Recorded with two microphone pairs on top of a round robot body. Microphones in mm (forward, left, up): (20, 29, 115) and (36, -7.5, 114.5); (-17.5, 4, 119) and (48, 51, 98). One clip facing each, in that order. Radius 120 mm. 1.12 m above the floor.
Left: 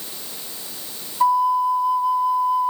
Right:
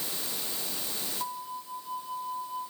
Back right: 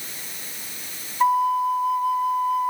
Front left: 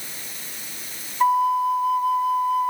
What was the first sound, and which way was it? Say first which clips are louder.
A flute: left 24 dB, front left 1 dB; 135° left.